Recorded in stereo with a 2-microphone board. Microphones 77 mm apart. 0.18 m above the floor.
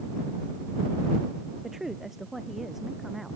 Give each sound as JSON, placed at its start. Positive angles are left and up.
{"t": 1.6, "sound": "a woman speaking", "side_deg": -5}